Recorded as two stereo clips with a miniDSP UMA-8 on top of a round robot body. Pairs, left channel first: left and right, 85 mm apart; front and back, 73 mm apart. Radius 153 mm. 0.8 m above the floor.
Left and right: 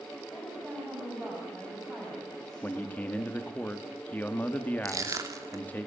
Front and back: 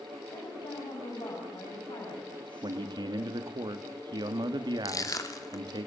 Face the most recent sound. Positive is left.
turn(degrees=-40)